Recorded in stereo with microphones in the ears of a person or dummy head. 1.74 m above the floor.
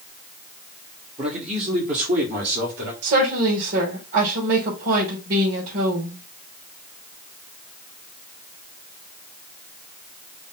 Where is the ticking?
No ticking in this recording.